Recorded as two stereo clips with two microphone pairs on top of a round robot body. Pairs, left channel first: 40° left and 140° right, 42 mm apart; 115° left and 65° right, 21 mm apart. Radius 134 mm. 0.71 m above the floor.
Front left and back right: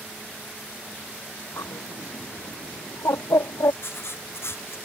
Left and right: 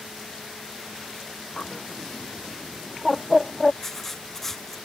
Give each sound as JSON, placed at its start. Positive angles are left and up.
{"t": 1.6, "sound": "a bird", "azimuth_deg": 35}
{"t": 3.8, "sound": "writing", "azimuth_deg": 50}